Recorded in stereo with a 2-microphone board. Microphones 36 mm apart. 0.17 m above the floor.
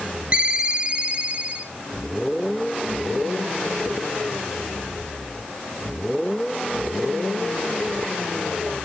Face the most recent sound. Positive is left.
turn(degrees=-30)  # may be behind; listen again after turning